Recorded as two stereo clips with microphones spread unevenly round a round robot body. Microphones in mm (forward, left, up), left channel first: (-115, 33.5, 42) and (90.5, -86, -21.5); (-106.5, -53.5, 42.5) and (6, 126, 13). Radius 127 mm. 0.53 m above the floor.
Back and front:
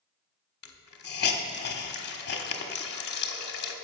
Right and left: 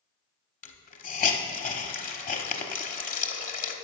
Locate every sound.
0.6 s a hiss: 165° right, 1.0 m